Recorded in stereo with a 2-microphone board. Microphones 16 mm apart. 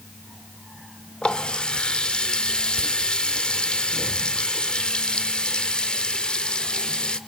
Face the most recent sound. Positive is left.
turn(degrees=65)  # may be behind; listen again after turning